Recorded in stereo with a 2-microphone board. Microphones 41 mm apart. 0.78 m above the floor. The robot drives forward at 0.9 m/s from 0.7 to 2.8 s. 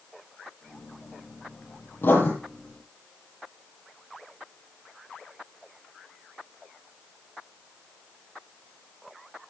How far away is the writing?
About 8 m.